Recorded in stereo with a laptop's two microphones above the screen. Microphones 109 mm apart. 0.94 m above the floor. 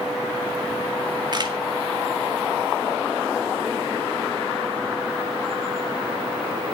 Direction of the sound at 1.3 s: 40° right (ahead or behind).